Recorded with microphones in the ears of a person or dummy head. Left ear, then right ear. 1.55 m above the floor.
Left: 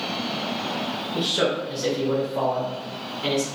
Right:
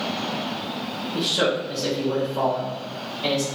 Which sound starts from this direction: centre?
A man speaking, at 1.1 s.